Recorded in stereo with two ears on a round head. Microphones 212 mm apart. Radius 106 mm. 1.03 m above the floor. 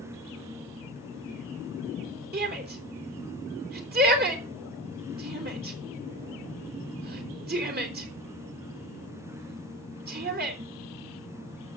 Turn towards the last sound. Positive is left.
turn(degrees=-40)  # may be behind; listen again after turning